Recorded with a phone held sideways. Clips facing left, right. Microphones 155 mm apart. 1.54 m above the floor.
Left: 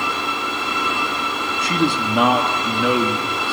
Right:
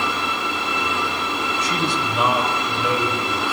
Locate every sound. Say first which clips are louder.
1.6 s a man speaking: left 7 dB; 60° left (ahead or behind), 3 m; by 3.5 s 75° left (ahead or behind), 3.5 m